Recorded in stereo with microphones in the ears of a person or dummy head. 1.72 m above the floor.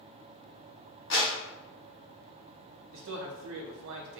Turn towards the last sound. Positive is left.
turn(degrees=-65)  # may be behind; listen again after turning